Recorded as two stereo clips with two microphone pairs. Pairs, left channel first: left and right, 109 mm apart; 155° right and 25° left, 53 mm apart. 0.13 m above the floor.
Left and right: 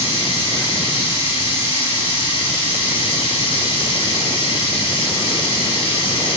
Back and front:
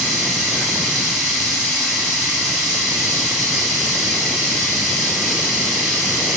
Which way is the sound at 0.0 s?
120° left.